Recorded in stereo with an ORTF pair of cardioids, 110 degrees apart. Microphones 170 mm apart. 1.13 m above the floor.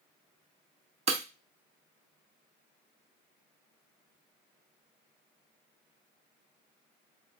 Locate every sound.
1.1 s breaking glass: 40° right, 0.9 m